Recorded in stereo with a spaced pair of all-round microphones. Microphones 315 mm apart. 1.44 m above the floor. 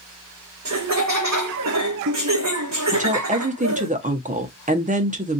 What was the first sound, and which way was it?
Laughter, 60° right (ahead or behind).